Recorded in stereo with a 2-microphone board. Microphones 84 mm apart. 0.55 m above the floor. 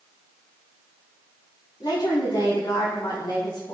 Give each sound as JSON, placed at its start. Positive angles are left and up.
{"t": 1.8, "sound": "a woman speaking", "side_deg": 70, "distance_m": 6.0}